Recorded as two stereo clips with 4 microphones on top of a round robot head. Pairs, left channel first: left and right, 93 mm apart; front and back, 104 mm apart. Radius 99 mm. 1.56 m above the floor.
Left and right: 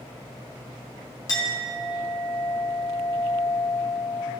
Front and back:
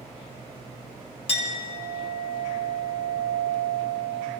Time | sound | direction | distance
1.3 | a clink | 30° left | 2.5 m